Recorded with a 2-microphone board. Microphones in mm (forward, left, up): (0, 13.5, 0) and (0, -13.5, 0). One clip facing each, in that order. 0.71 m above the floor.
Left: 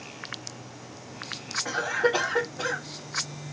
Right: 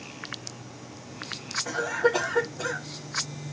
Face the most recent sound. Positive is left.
turn(degrees=35)  # may be behind; listen again after turning